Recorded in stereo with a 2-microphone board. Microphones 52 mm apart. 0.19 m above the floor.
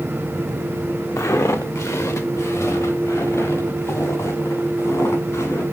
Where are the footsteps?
85° left, 1.2 m; by 5.6 s 80° left, 6 m.